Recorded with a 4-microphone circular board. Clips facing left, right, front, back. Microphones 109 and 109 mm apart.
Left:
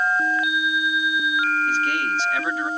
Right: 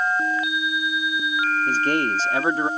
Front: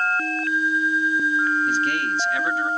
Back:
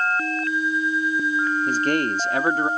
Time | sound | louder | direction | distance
1.7 | a man speaking | right 2 dB, back 2 dB | 140° right | ?